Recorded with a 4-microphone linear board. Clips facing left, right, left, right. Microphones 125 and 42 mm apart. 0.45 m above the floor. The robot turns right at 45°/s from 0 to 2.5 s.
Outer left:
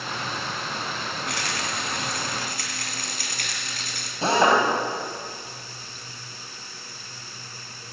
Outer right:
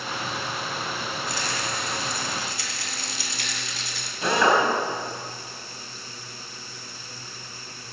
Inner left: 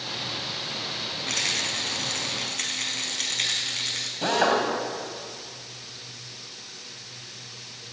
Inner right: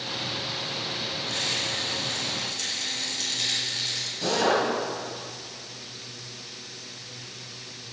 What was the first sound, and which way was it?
A rattle, 70° left.